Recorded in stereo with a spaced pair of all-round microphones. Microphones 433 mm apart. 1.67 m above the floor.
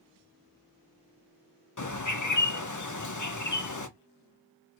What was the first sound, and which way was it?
A bird, 45° left (ahead or behind).